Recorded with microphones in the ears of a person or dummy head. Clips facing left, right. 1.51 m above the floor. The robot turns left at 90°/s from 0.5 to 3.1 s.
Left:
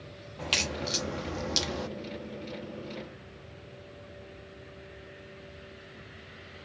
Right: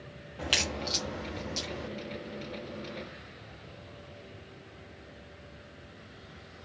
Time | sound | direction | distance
0.4 | a crack | 10° right (ahead or behind) | 1.0 m